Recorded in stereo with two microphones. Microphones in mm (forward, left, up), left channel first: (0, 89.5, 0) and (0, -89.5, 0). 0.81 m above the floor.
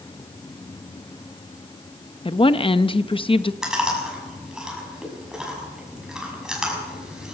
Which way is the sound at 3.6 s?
5° right (ahead or behind).